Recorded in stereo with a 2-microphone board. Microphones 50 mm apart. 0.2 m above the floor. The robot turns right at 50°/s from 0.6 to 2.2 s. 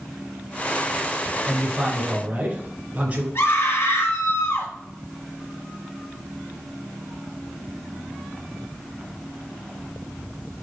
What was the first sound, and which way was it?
A man speaking, straight behind.